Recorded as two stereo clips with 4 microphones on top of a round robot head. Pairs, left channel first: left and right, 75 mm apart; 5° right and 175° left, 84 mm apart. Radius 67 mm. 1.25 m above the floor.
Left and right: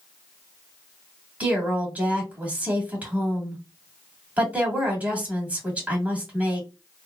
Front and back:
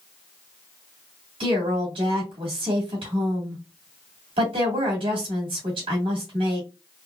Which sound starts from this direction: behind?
A woman speaking, at 1.4 s.